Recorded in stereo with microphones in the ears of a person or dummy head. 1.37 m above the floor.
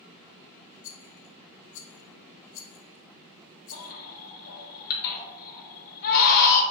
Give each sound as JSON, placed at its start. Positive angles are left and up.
{"t": 0.8, "sound": "a rattle", "side_deg": 60, "distance_m": 0.6}
{"t": 3.7, "sound": "a baby crying", "side_deg": 50, "distance_m": 0.8}